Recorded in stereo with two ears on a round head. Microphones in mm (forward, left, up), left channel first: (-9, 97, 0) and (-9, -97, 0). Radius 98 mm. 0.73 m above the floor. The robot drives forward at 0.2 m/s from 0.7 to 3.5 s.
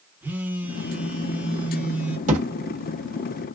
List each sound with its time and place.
0.2 s a phone buzzing: 10° right (ahead or behind), 0.9 m; by 2.2 s 5° right (ahead or behind), 1.1 m
2.3 s a thud: 35° right (ahead or behind), 1.1 m